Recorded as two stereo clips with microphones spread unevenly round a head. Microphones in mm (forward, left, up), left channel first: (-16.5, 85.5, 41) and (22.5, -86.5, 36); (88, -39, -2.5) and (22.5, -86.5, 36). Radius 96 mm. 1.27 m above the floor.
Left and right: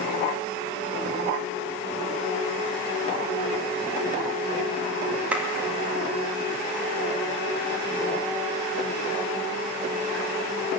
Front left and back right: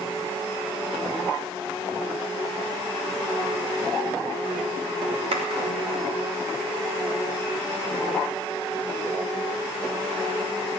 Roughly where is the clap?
Behind.